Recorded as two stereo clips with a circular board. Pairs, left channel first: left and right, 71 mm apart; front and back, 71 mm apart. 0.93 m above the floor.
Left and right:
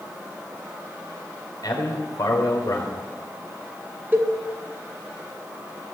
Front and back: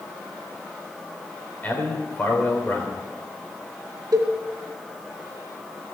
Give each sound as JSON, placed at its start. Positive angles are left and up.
{"t": 1.6, "sound": "a man speaking", "azimuth_deg": 65, "distance_m": 3.5}
{"t": 4.1, "sound": "a cowbell", "azimuth_deg": -150, "distance_m": 1.9}